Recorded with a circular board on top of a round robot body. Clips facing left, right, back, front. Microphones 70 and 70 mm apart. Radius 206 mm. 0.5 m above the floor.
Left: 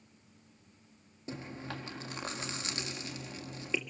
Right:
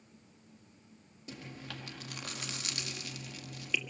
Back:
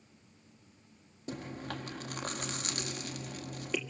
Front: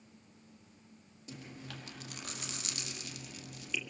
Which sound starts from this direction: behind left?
Chewing, at 1.3 s.